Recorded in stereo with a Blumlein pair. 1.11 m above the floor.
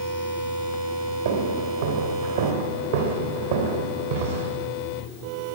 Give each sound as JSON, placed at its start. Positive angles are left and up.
{"t": 1.2, "sound": "footsteps", "azimuth_deg": -60, "distance_m": 3.5}